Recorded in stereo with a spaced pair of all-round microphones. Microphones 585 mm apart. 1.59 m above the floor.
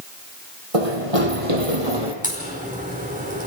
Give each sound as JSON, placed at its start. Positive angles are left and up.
{"t": 0.7, "sound": "running footsteps", "side_deg": -65, "distance_m": 4.0}
{"t": 2.2, "sound": "a crack", "side_deg": -15, "distance_m": 5.0}